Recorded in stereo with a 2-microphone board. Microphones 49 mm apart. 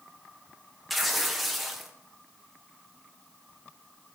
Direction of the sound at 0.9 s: 5° right (ahead or behind).